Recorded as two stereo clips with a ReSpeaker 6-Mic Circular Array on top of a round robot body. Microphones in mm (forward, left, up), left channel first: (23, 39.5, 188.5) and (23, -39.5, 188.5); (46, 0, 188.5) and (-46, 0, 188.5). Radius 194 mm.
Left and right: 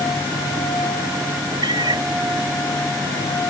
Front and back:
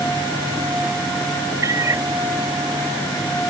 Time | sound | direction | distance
1.6 | a cat meowing | 125° right | ?